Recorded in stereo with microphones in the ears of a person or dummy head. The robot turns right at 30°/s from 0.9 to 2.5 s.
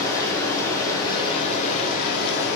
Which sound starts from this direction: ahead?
Running water, at 0.0 s.